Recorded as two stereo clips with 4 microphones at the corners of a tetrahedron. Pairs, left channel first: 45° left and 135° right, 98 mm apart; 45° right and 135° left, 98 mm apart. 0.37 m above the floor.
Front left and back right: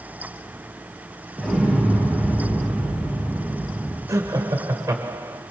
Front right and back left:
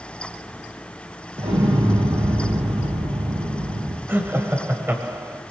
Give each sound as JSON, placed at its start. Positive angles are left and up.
{"t": 1.4, "sound": "an explosion", "azimuth_deg": 130, "distance_m": 5.0}
{"t": 4.1, "sound": "laughter", "azimuth_deg": -170, "distance_m": 1.8}